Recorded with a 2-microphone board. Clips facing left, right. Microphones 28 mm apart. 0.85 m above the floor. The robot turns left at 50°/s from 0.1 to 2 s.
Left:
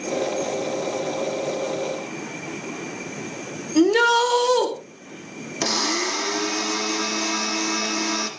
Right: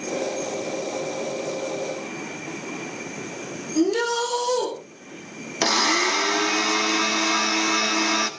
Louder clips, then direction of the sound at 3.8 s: Left 5 dB; 60° left (ahead or behind).